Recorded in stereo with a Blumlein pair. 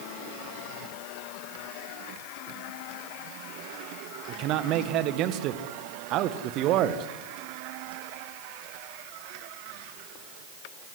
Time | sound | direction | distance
4.3 | a man speaking | 35° right | 1.8 m